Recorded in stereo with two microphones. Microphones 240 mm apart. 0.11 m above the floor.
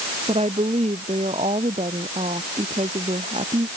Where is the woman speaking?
25° right (ahead or behind).